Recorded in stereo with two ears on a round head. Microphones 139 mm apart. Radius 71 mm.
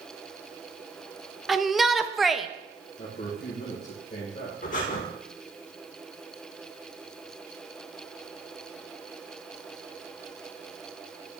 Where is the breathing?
55° left (ahead or behind), 1.5 m.